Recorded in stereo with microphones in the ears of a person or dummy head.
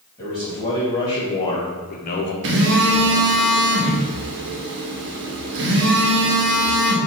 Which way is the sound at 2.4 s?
65° right (ahead or behind).